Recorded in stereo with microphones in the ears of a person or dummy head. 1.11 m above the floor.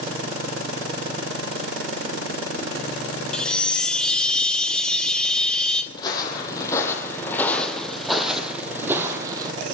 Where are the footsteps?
30° left (ahead or behind), 3 m; by 9.5 s 20° right (ahead or behind), 2.5 m.